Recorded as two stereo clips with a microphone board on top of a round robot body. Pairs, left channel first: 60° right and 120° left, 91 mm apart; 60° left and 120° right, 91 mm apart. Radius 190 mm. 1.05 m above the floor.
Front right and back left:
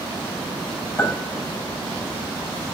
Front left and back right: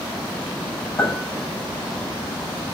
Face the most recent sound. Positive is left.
turn(degrees=5)